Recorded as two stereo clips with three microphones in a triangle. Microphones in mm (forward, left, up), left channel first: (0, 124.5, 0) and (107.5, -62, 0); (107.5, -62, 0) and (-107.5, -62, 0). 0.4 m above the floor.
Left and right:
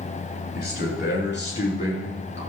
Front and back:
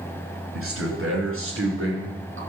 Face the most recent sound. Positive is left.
turn(degrees=155)